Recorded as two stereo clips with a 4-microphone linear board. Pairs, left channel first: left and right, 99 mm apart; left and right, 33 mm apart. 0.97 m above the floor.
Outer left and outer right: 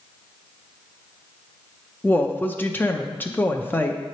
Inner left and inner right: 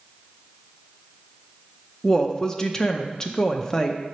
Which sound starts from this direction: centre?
A woman speaking, at 2.0 s.